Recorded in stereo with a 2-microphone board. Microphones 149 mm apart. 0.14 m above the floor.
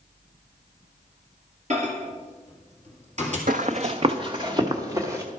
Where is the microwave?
50° right (ahead or behind), 2 m.